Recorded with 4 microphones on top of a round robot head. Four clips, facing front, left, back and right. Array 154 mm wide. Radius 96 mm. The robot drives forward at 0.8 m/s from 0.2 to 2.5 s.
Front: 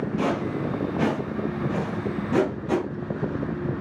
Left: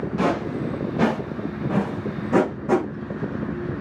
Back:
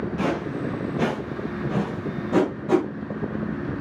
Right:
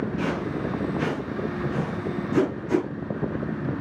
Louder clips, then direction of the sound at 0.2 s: Left 4 dB, even; 85° left.